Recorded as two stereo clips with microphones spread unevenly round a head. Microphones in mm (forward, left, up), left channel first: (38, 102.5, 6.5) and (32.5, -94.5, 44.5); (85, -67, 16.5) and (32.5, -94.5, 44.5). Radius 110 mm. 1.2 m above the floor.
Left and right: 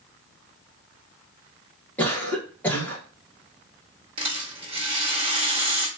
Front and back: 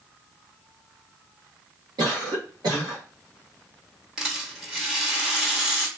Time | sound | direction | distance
2.0 | a cough | 165° left | 1.1 m
4.2 | a rattle | 120° right | 1.0 m